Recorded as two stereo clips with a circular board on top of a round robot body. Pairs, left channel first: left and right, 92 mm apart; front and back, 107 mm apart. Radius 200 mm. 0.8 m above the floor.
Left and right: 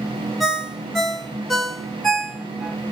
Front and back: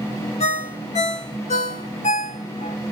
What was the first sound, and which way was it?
A ringtone, straight ahead.